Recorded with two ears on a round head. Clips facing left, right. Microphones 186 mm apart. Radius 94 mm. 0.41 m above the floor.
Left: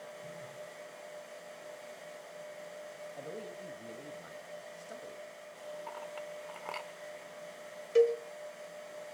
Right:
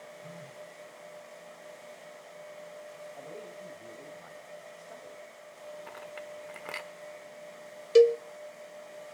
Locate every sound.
0.2 s a phone buzzing: 10° right (ahead or behind), 6 m
3.2 s a man speaking: 25° left (ahead or behind), 2.5 m
5.9 s a clink: 20° right (ahead or behind), 0.8 m
8.0 s a cowbell: 50° right (ahead or behind), 0.9 m